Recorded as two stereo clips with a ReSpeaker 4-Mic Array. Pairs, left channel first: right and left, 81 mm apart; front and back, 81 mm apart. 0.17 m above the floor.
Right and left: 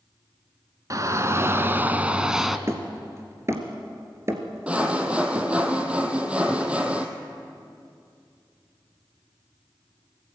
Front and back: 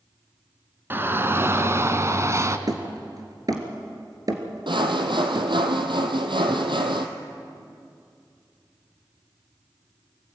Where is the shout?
125° left, 1.6 m; by 2.6 s straight behind, 1.3 m.